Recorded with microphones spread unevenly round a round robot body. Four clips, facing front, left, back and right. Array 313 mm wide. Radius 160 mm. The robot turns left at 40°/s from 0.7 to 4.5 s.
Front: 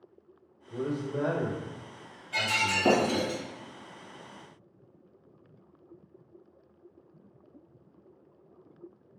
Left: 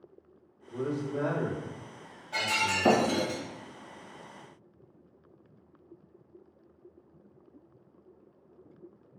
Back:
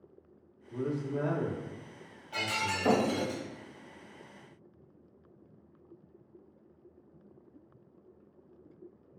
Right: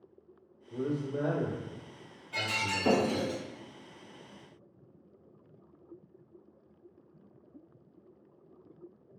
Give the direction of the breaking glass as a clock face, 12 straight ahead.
8 o'clock.